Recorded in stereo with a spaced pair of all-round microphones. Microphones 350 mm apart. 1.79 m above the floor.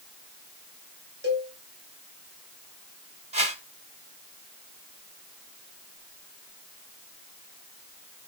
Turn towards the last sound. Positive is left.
turn(degrees=-20)  # may be behind; listen again after turning